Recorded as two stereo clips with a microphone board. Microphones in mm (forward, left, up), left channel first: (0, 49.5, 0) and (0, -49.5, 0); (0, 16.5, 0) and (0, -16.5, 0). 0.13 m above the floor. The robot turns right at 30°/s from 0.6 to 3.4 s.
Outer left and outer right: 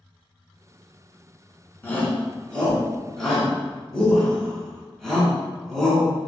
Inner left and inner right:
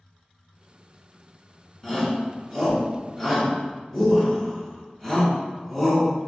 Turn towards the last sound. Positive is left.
turn(degrees=5)  # may be behind; listen again after turning